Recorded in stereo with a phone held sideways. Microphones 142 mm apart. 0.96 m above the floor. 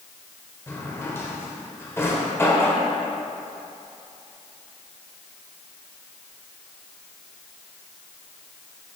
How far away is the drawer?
About 1.2 m.